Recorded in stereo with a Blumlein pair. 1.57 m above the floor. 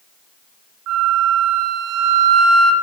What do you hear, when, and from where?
0.9 s a flute: 35° right, 0.6 m